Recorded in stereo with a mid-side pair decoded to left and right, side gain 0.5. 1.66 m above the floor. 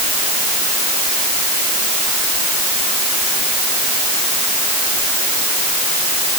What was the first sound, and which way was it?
Only background noise.